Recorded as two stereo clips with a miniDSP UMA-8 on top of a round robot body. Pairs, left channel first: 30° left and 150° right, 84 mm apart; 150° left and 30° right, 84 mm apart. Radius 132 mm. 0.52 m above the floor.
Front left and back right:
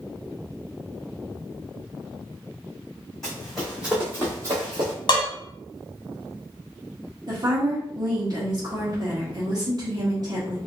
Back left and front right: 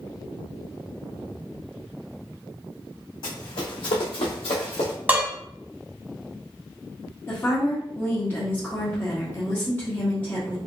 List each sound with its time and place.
3.2 s running footsteps: 115° left, 1.4 m; by 4.9 s straight behind, 0.8 m
5.1 s dishes clattering: 40° left, 1.0 m
7.3 s a woman speaking: 150° right, 1.1 m